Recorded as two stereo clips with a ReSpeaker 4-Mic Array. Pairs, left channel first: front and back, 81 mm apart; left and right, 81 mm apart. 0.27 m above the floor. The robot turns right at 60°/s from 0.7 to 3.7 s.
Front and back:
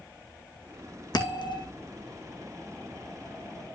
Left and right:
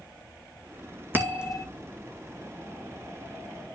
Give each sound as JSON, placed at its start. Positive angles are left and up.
{"t": 1.1, "sound": "a bell", "azimuth_deg": -30, "distance_m": 2.5}